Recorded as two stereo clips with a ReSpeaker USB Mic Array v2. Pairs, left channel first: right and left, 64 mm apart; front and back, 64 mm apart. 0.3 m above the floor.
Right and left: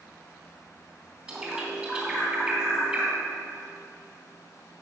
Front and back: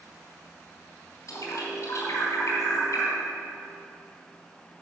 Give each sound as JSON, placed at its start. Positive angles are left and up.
{"t": 1.3, "sound": "a bird", "azimuth_deg": 20, "distance_m": 3.0}